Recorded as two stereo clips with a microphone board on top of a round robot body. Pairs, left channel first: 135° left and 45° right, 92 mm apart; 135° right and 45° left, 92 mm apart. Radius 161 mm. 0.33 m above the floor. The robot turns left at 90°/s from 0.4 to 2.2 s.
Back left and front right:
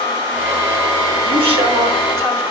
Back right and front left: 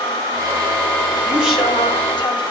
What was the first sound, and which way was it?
A woman speaking, 20° right.